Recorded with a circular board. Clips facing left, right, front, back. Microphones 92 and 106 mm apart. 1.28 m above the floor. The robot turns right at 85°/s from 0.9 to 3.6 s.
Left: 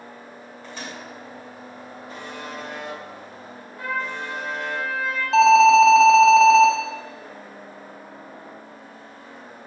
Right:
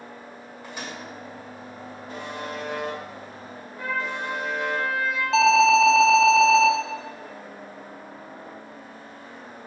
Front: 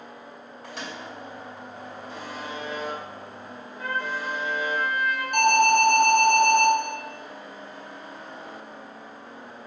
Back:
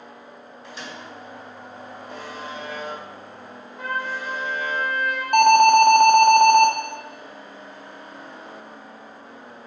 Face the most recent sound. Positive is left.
turn(degrees=180)